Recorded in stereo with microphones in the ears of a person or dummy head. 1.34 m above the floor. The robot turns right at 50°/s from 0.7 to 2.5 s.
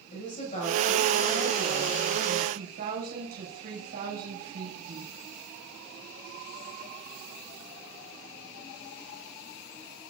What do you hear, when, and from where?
0.1 s a woman speaking: 140° left, 6 m; by 5.1 s 130° right, 6 m